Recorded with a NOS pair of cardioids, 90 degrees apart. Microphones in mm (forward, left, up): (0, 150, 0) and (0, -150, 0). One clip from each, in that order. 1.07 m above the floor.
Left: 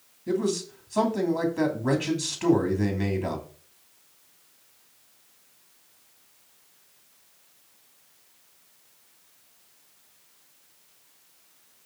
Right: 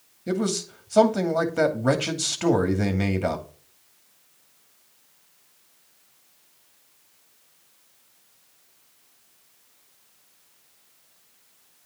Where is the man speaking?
45° right, 2.5 m.